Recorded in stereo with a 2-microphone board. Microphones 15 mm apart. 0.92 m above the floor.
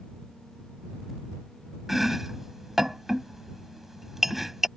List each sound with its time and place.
1.9 s chopping: 20° right (ahead or behind)